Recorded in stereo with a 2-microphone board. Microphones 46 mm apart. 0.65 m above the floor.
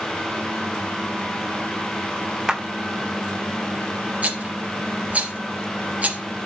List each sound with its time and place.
2.5 s a clap: 15° right (ahead or behind), 1.5 m
4.2 s a rattle: 35° right (ahead or behind), 3 m